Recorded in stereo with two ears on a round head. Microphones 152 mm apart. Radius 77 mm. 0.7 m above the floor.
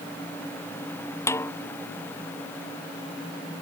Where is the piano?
No piano in this recording.